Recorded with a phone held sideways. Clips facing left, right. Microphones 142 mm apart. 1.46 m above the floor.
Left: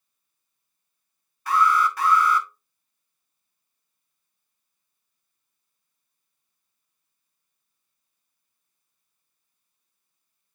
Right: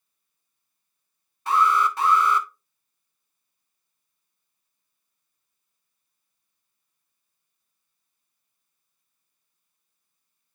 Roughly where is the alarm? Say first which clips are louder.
Even; right.